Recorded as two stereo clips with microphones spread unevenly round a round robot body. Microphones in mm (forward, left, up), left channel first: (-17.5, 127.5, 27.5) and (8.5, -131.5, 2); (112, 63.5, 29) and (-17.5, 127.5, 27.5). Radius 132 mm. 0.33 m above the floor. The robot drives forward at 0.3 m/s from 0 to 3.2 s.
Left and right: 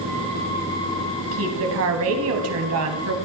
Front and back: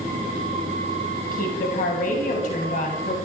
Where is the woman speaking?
55° right, 2 m; by 3.1 s 70° right, 2.0 m.